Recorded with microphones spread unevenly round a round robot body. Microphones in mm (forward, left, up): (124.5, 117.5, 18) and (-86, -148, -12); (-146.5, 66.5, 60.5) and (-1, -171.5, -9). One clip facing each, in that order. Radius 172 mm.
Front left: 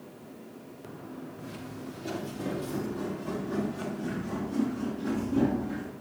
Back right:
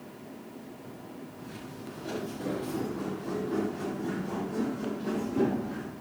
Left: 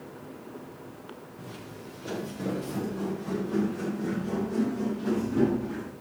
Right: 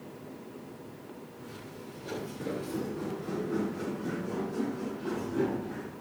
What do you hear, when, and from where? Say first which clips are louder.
1.4 s footsteps: front left 2 dB, left 2 dB; 95° left, 9 m; by 5.9 s 105° left, 11 m